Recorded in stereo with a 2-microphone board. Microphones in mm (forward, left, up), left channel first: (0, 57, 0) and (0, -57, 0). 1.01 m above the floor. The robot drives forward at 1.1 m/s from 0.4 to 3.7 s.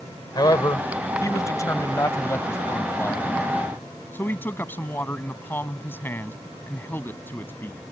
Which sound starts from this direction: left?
A man speaking, at 0.3 s.